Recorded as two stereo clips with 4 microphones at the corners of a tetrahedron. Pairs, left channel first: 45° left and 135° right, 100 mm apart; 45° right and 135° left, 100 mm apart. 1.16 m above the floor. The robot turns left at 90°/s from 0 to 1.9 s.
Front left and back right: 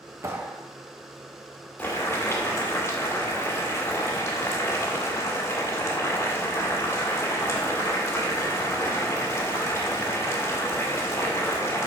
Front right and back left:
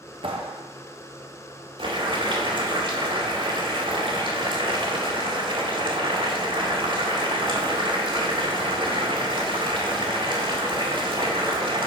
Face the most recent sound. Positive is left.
turn(degrees=110)